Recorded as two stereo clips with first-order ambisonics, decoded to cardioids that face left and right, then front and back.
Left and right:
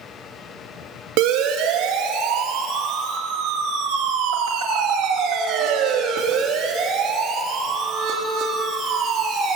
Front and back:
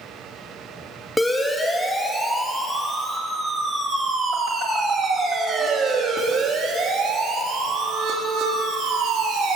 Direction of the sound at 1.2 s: 90° right.